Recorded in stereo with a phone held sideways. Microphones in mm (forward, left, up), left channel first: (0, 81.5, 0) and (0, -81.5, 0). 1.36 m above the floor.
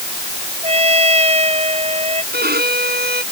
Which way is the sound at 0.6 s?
40° right (ahead or behind).